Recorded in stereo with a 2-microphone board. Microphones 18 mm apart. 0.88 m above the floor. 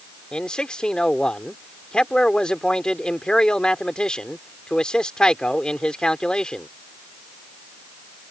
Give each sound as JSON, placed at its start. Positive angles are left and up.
{"t": 0.3, "sound": "a man speaking", "side_deg": 60}